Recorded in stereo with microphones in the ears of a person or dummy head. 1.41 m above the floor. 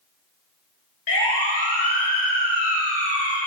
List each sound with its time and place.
1.1 s a siren: 55° left (ahead or behind), 5.5 m